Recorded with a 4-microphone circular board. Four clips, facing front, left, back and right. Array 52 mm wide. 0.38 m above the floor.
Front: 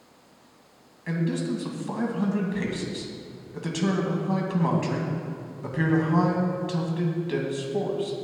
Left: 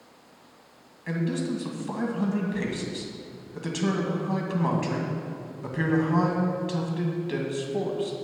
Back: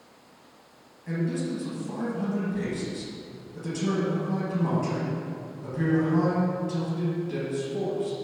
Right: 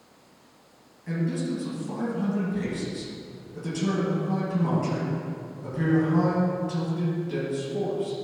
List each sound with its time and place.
1.1 s a man speaking: 40° left, 2 m